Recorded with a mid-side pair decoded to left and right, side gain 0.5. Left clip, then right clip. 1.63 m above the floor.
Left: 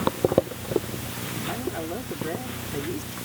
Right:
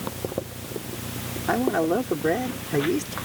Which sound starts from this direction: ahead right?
A man speaking, at 1.5 s.